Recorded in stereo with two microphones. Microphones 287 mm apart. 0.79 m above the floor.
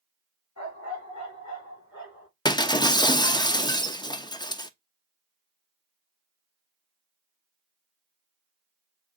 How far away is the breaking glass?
About 0.5 m.